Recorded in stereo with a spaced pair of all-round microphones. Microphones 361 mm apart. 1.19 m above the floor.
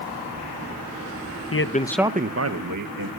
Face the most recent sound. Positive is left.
turn(degrees=-65)  # may be behind; listen again after turning